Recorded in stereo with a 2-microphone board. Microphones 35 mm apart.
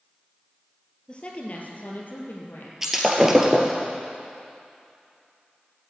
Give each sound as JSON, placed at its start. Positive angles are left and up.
{"t": 1.1, "sound": "a woman speaking", "side_deg": 25, "distance_m": 2.5}
{"t": 2.8, "sound": "breaking glass", "side_deg": -10, "distance_m": 1.8}